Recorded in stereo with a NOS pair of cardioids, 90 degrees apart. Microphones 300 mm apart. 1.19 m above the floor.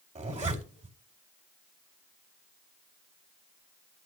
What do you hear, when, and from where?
0.1 s a zipper: 20° right, 2.5 m